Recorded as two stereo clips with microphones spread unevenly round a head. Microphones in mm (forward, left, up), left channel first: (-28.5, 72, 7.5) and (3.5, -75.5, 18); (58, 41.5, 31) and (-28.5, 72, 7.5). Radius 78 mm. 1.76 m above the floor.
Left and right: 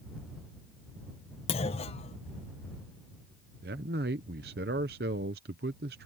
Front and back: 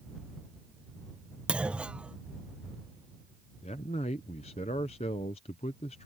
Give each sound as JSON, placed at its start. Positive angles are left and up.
{"t": 1.5, "sound": "a clunk", "azimuth_deg": 70}
{"t": 3.6, "sound": "a man speaking", "azimuth_deg": -50}